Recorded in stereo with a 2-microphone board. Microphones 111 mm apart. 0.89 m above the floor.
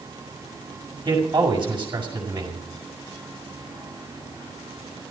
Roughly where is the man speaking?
Right.